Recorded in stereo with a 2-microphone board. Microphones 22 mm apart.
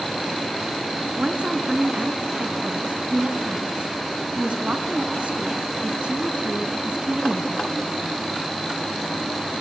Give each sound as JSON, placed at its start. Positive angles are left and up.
{"t": 1.2, "sound": "a woman speaking", "side_deg": -60, "distance_m": 2.0}